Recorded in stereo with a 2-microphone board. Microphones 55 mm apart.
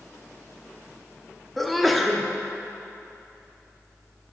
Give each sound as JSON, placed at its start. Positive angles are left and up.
{"t": 1.6, "sound": "a sneeze", "side_deg": 0, "distance_m": 0.6}